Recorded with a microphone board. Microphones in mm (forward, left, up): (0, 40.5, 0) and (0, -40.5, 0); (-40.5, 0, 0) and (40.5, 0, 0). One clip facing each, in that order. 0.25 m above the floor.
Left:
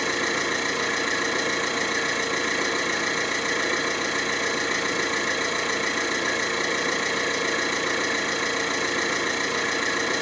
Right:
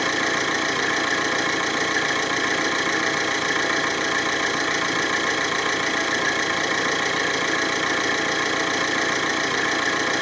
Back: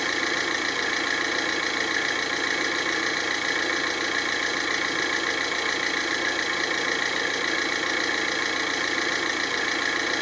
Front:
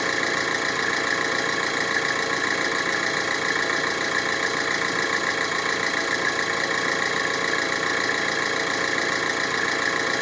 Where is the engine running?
65° right, 3 m.